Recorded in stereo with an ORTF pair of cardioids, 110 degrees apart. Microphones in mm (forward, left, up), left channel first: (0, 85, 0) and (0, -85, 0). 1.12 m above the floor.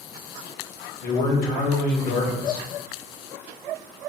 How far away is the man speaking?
About 1.2 m.